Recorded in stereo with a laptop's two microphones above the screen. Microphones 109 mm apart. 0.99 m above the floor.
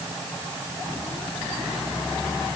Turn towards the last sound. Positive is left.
No sound to turn to.